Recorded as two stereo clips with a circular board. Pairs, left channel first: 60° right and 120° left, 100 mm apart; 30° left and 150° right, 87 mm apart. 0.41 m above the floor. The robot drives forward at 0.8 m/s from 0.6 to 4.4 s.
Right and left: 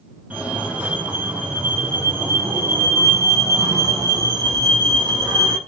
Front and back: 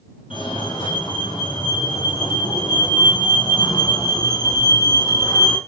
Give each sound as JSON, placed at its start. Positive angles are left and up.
{"t": 0.3, "sound": "a fire alarm", "azimuth_deg": 45, "distance_m": 7.5}